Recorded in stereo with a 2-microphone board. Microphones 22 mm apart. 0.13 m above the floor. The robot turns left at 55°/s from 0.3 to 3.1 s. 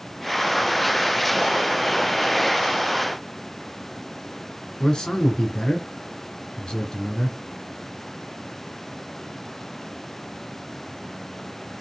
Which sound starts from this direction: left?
A man speaking, at 4.8 s.